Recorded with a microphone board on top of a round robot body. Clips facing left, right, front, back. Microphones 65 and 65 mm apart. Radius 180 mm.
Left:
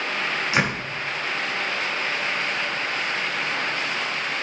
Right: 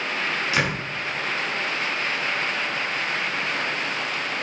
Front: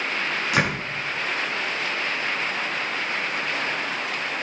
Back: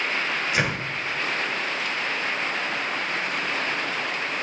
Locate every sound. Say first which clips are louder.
0.5 s a door slam: left 2 dB, front 4 dB; 25° left, 5 m